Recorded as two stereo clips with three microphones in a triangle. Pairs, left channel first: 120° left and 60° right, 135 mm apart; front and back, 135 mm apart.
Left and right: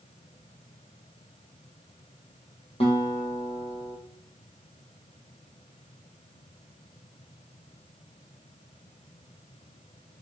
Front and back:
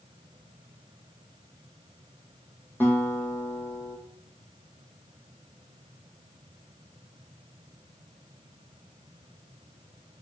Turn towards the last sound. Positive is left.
turn(degrees=75)